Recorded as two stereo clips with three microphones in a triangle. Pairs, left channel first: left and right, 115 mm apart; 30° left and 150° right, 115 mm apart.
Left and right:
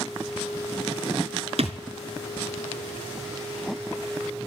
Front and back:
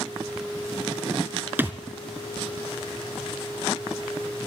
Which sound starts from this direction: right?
A thud, at 1.6 s.